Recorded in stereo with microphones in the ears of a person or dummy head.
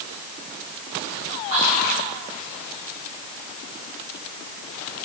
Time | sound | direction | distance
1.5 | whispering | 40° right (ahead or behind) | 2.5 m